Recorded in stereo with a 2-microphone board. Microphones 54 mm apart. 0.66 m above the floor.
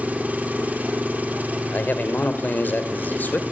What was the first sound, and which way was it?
An engine running, 30° right (ahead or behind).